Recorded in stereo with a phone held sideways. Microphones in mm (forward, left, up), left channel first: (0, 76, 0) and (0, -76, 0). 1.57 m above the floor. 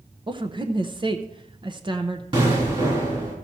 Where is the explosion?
35° right (ahead or behind), 3.5 m.